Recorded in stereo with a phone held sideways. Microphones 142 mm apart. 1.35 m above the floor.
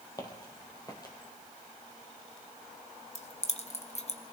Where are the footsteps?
25° left (ahead or behind), 1.7 m.